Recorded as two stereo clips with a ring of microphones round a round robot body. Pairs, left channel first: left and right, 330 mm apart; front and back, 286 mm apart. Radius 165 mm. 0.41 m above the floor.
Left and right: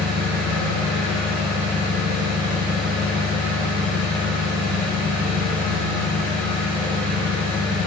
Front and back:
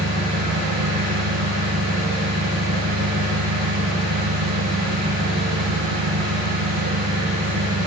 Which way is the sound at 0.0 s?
145° right.